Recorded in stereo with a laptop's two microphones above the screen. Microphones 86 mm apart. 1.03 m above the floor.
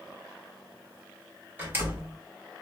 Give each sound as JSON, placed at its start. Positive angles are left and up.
{"t": 1.6, "sound": "a door slam", "side_deg": -20, "distance_m": 2.5}